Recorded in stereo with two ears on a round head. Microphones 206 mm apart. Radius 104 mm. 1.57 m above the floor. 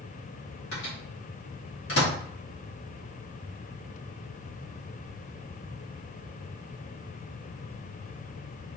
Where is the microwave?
60° left (ahead or behind), 2.0 m.